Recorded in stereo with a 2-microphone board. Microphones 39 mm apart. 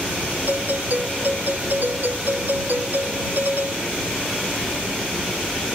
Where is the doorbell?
60° right (ahead or behind).